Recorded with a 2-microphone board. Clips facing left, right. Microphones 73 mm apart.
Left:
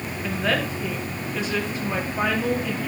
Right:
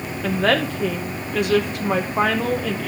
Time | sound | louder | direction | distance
0.2 | a woman speaking | right 5 dB | 65° right (ahead or behind) | 2 m